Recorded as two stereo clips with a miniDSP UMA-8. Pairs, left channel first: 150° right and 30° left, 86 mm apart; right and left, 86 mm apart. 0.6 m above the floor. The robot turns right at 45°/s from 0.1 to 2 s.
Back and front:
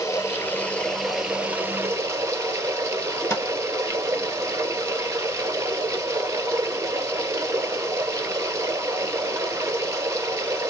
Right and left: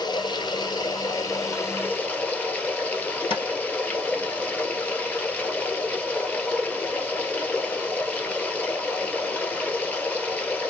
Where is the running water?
105° right, 0.9 m; by 10.7 s 20° right, 0.9 m.